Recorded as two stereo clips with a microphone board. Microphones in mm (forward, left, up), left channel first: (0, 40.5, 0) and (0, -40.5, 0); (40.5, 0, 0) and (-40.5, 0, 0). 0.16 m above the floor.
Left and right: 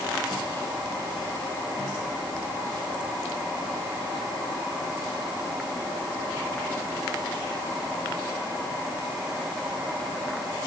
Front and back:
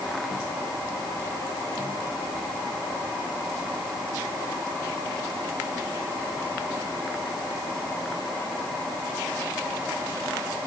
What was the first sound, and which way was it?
Only background noise.